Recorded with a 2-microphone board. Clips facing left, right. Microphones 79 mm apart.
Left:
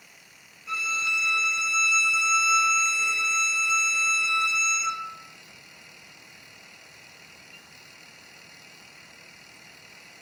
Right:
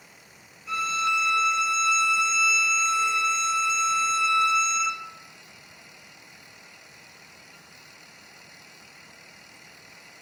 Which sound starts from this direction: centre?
A violin, at 0.7 s.